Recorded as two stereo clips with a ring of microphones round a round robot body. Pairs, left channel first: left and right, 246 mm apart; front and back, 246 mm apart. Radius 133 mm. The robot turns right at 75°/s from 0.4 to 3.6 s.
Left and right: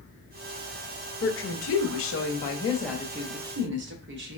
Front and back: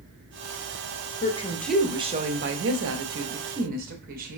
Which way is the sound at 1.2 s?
50° left.